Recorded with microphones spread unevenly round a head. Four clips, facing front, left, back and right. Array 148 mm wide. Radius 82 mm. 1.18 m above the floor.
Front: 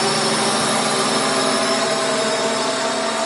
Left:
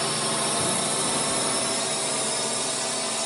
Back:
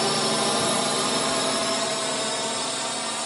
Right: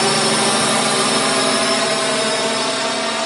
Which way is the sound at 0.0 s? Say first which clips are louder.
Right 11 dB, front 5 dB; 70° right.